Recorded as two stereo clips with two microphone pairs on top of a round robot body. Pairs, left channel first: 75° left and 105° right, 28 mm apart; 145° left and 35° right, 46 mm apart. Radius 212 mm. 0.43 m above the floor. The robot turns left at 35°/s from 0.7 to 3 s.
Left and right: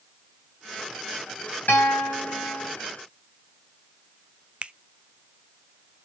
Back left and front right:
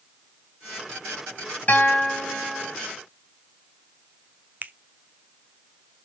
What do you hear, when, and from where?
1.7 s a guitar: 90° left, 3.5 m; by 2.8 s 55° left, 3.5 m
4.6 s a finger snap: 75° right, 0.8 m